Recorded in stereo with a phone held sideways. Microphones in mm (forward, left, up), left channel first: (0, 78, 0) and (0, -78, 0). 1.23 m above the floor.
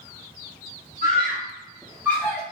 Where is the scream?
55° right (ahead or behind), 1.4 m; by 2.4 s 5° left (ahead or behind), 1.2 m.